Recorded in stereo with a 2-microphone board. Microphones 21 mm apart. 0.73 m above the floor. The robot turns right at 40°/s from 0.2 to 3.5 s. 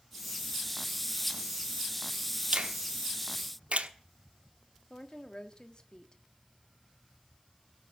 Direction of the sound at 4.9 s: 40° left (ahead or behind).